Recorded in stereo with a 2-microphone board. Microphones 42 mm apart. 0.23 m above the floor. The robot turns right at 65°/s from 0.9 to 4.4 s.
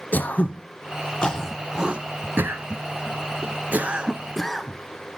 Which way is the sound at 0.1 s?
45° left (ahead or behind).